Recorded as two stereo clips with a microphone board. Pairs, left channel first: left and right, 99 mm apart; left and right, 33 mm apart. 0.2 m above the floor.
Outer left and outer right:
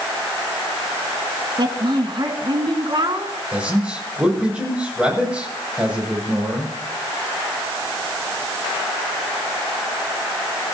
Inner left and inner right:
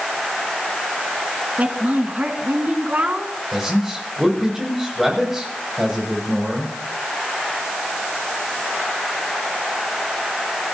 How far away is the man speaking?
About 7.5 m.